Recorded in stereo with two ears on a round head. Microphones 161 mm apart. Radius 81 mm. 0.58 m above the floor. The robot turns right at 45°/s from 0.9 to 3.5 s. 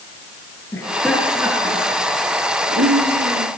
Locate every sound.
0.7 s laughter: 15° left (ahead or behind), 8 m; by 3.5 s 75° right (ahead or behind), 8 m